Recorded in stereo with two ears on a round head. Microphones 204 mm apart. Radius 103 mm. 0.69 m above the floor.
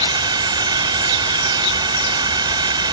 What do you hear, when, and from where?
0.0 s a drone: 20° right (ahead or behind)